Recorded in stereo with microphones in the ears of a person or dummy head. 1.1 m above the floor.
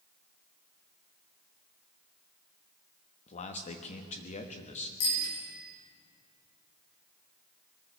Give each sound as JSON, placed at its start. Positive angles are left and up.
{"t": 3.3, "sound": "a man speaking", "side_deg": 35, "distance_m": 1.2}
{"t": 5.0, "sound": "a bicycle bell", "side_deg": 85, "distance_m": 6.0}